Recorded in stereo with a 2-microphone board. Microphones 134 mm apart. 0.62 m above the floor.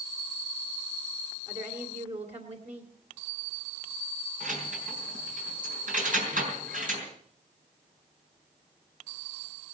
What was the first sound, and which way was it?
A woman speaking, 55° right (ahead or behind).